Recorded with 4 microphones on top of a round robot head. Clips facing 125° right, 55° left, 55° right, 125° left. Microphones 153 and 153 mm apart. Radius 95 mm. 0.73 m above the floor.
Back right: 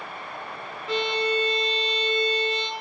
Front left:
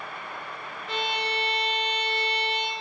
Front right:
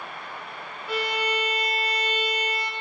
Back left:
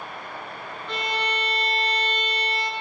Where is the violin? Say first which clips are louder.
Back right 6 dB, front right 2 dB; 135° right, 0.7 m.